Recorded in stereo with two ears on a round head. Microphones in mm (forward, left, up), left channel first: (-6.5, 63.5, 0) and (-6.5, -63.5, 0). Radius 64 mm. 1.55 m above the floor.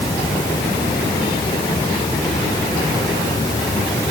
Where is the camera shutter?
No camera shutter in this recording.